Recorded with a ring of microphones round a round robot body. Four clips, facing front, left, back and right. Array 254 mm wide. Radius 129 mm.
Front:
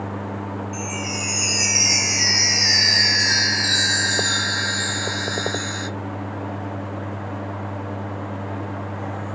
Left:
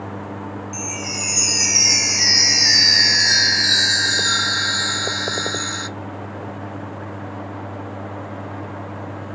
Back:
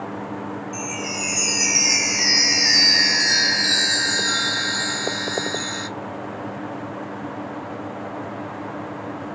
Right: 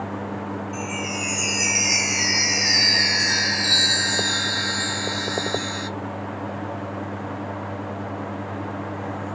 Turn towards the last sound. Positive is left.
turn(degrees=90)